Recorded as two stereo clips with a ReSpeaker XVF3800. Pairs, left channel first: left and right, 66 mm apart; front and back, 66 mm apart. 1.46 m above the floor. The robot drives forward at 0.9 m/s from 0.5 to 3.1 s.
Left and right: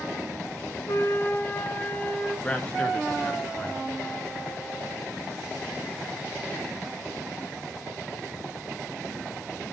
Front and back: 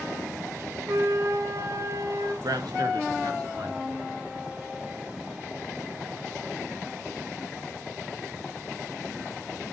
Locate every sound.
0.9 s a flute: 135° left, 1.5 m; by 2.3 s 155° left, 2.5 m
2.4 s a man speaking: 165° left, 1.6 m; by 4.0 s 170° left, 2 m